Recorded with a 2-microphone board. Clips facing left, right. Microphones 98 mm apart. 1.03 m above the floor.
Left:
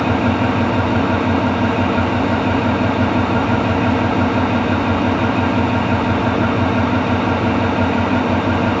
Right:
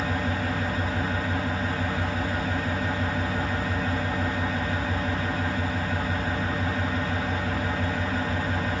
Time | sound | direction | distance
0.0 | an engine running | 80° left | 0.7 m